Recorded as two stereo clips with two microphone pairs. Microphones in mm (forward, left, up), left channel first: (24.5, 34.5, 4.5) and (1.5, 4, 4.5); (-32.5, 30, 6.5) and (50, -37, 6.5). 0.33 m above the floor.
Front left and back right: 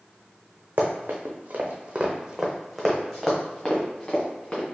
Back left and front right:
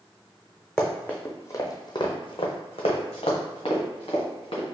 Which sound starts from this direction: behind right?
Running footsteps, at 0.8 s.